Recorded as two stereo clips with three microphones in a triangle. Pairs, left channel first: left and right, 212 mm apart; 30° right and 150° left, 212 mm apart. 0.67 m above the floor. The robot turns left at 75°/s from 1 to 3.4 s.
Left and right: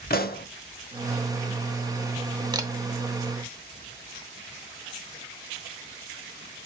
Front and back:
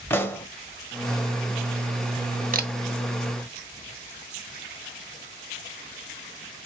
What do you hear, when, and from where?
0.1 s a pop: 50° left, 0.7 m
2.5 s a camera shutter: 160° right, 0.6 m; by 2.7 s 170° right, 0.6 m